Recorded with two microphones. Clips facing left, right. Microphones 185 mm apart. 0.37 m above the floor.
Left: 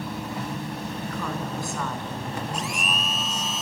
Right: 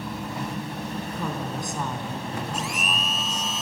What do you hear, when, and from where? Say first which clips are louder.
1.1 s a woman speaking: left 1 dB; 25° right (ahead or behind), 3.5 m; by 3.5 s 15° left (ahead or behind), 2 m
2.5 s a blender: even; centre (ahead or behind), 0.8 m